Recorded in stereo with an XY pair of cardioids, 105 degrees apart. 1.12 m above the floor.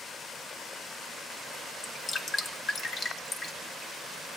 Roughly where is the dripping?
Ahead left.